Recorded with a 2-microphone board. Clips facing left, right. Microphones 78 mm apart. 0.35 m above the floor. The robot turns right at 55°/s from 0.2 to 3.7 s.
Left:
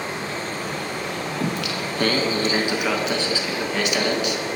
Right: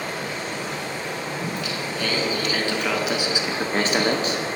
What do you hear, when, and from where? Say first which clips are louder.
0.0 s running water: left 1 dB; 25° left, 1.6 m; by 4.6 s 140° right, 1.6 m
1.4 s singing: left 3 dB; 90° left, 0.6 m; by 4.5 s 140° right, 0.6 m